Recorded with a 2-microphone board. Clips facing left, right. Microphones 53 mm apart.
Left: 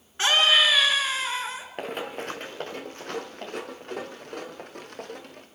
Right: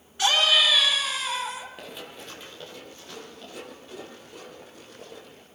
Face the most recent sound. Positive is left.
turn(degrees=60)  # may be behind; listen again after turning